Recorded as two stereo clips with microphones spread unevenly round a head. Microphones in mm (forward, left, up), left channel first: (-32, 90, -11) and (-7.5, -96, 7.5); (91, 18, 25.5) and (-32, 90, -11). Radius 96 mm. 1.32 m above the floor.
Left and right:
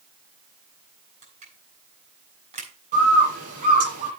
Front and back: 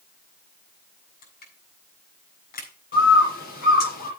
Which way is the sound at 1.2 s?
25° right.